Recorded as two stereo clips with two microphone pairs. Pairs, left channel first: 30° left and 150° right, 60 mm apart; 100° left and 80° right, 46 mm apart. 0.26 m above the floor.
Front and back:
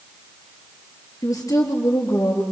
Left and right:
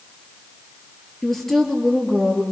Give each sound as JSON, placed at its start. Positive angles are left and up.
{"t": 1.2, "sound": "a woman speaking", "azimuth_deg": 15, "distance_m": 5.0}